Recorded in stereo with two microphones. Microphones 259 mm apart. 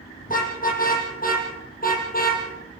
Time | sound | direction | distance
0.2 | a car horn | 35° left (ahead or behind) | 8 m